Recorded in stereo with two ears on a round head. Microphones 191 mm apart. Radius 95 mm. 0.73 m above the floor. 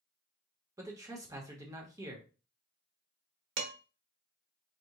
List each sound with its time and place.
0.8 s a man speaking: 15° right (ahead or behind), 1.2 m
3.6 s dishes clattering: 65° right (ahead or behind), 1.4 m